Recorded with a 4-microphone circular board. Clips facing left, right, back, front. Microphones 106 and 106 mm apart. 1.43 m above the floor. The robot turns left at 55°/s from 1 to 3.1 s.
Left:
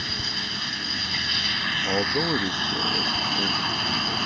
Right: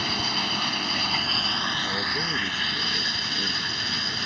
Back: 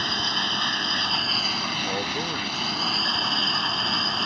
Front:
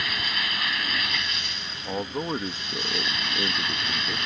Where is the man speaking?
95° left; by 4.2 s 25° left.